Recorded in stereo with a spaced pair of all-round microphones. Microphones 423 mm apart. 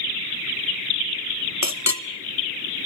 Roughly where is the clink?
Left.